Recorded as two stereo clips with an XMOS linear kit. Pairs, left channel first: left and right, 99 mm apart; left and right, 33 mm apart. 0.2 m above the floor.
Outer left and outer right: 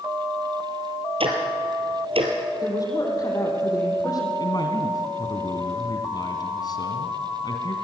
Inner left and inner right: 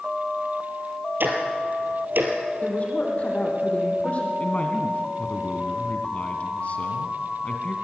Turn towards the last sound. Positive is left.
turn(degrees=45)  # may be behind; listen again after turning